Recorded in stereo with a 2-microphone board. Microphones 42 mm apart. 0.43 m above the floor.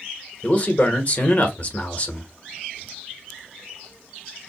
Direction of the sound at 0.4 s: 35° left (ahead or behind).